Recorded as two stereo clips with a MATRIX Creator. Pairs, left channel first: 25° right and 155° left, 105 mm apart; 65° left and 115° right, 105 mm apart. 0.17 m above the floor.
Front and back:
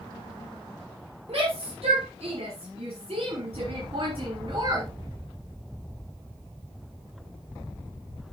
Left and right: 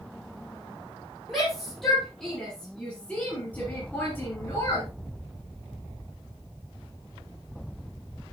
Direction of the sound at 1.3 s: 160° left.